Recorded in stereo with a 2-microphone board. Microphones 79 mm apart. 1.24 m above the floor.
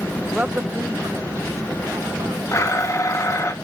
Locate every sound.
0.3 s a woman speaking: 15° right (ahead or behind), 0.9 m; by 2.4 s 60° right (ahead or behind), 2.0 m
2.5 s a blender: 40° left (ahead or behind), 1.3 m